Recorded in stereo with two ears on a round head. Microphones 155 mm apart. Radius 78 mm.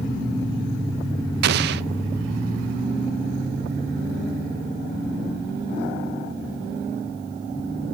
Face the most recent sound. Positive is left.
turn(degrees=-65)  # may be behind; listen again after turning